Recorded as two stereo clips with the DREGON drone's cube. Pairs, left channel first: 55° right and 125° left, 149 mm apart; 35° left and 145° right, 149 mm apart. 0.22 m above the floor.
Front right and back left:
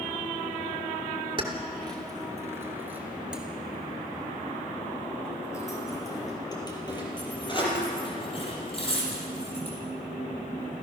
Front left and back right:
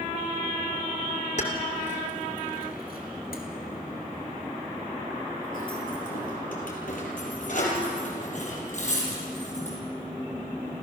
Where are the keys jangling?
70° left, 3 m; by 9.8 s 5° right, 7 m.